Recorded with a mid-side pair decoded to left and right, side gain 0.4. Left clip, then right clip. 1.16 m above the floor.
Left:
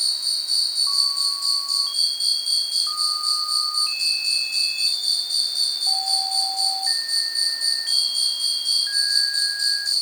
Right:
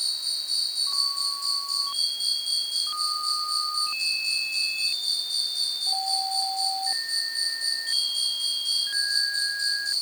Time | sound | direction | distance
0.0 | an insect | 45° left | 1.3 m